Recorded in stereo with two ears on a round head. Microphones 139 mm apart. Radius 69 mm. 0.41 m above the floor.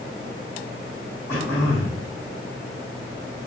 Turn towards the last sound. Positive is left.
turn(degrees=15)  # may be behind; listen again after turning